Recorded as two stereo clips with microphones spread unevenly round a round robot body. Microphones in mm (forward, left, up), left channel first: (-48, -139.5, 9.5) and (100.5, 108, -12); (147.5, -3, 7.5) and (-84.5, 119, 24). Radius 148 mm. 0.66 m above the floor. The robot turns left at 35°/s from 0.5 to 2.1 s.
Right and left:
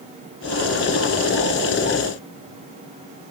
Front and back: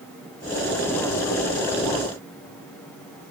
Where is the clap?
No clap in this recording.